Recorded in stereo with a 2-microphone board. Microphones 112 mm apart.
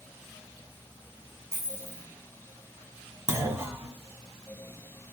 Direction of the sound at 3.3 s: 25° right (ahead or behind).